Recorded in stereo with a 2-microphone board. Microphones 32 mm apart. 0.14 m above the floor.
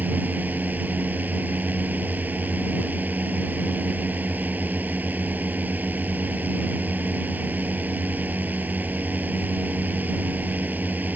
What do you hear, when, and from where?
0.0 s a drone: 55° right (ahead or behind)